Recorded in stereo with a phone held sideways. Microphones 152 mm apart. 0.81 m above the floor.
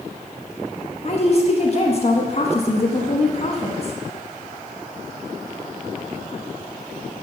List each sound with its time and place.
1.0 s a woman speaking: 45° left (ahead or behind), 1.3 m